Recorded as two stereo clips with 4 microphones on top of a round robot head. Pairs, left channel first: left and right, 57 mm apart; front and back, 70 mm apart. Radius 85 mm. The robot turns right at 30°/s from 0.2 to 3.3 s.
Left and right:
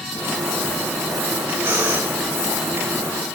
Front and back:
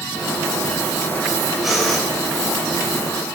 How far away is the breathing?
About 2 m.